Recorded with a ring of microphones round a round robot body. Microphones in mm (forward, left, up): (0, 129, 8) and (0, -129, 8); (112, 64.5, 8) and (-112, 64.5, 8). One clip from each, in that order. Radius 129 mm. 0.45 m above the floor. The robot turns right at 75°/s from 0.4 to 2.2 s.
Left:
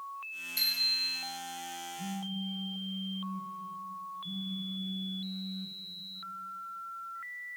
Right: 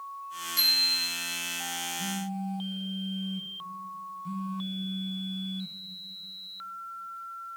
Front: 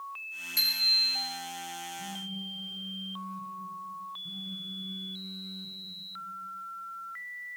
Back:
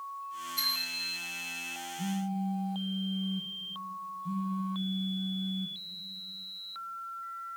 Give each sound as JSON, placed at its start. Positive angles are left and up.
{"t": 0.6, "sound": "a bicycle bell", "azimuth_deg": 0, "distance_m": 6.5}
{"t": 2.0, "sound": "a phone buzzing", "azimuth_deg": -150, "distance_m": 2.5}